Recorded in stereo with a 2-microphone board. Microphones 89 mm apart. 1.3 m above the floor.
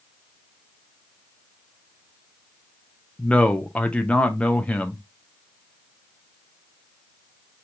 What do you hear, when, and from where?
3.2 s a man speaking: 15° left (ahead or behind), 0.5 m